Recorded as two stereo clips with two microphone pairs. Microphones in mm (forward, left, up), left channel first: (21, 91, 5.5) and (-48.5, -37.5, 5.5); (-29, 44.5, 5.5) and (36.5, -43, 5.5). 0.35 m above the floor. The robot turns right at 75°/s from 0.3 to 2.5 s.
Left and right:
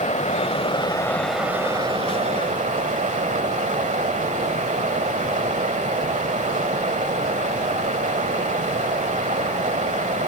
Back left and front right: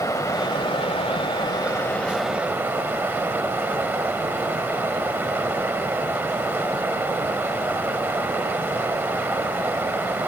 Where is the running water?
75° left, 1.2 m; by 10.3 s 120° right, 1.2 m.